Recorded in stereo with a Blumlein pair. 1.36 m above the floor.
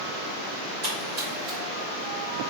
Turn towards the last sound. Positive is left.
turn(degrees=-45)